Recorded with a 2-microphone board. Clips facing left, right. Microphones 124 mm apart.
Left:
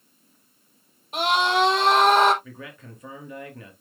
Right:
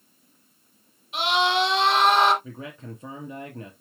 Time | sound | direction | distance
1.1 | a scream | 45° left (ahead or behind) | 4.5 m
2.4 | a man speaking | 30° right (ahead or behind) | 2.5 m